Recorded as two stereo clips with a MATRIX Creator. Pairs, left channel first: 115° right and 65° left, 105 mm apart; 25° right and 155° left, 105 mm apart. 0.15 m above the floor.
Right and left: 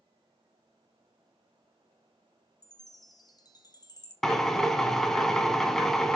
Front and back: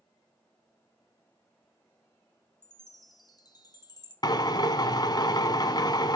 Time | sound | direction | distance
2.6 | a chime | 70° right | 1.4 m
4.2 | a drill | 30° right | 0.8 m